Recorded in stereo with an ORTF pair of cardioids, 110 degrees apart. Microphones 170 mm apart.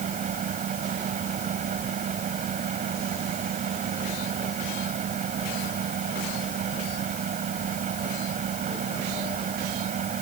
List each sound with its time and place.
0.0 s a fan: 50° right